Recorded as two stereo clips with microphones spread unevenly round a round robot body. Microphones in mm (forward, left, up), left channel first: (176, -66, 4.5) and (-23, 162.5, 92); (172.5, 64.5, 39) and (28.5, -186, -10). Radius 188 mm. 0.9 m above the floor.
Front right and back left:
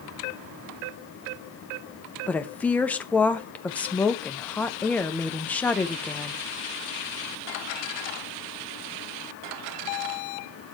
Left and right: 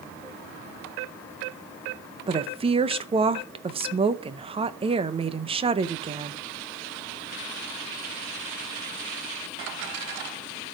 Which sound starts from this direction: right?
A woman speaking, at 2.3 s.